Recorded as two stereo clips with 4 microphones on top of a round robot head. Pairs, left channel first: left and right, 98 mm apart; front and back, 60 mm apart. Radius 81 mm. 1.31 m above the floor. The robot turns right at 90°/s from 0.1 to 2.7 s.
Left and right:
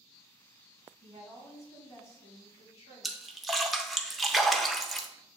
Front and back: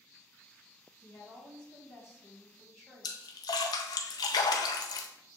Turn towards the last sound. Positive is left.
turn(degrees=0)